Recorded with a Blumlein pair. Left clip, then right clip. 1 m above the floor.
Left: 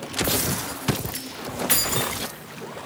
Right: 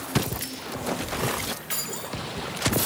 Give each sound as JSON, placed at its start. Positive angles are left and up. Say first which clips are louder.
{"t": 1.7, "sound": "keys jangling", "louder": "left 8 dB", "azimuth_deg": 45, "distance_m": 0.8}